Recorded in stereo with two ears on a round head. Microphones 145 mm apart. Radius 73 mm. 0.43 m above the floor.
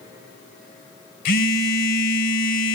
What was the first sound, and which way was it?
A phone buzzing, 55° left (ahead or behind).